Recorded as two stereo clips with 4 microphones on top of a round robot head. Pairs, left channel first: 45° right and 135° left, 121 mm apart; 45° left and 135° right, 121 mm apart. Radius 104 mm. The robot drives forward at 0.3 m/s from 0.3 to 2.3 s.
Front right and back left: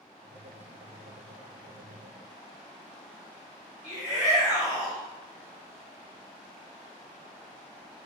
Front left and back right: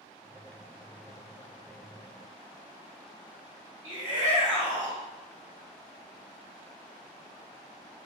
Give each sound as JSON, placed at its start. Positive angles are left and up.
{"t": 3.8, "sound": "a shout", "azimuth_deg": -140, "distance_m": 1.7}